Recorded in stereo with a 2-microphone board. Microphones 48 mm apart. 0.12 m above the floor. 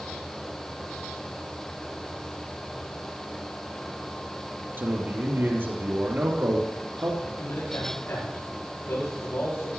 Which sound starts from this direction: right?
A man speaking, at 4.8 s.